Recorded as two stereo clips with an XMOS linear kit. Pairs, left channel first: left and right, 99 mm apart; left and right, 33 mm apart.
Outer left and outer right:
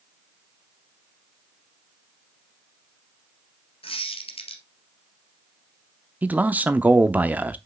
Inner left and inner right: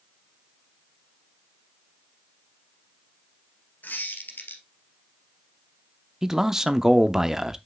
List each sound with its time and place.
3.8 s a squeak: 70° left (ahead or behind), 1.9 m
6.2 s a man speaking: 15° right (ahead or behind), 0.7 m